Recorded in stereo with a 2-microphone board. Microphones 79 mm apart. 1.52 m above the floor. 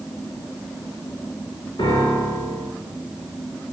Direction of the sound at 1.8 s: 75° left (ahead or behind).